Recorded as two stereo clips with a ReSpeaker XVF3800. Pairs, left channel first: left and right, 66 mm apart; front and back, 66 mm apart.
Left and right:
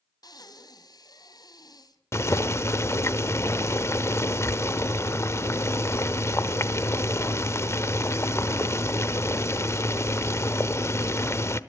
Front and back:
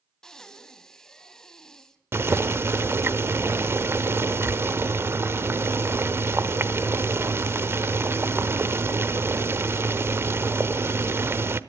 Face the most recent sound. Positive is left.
turn(degrees=130)